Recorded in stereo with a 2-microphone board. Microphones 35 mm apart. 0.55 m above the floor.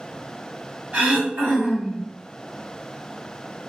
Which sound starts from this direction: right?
Throat clearing, at 0.9 s.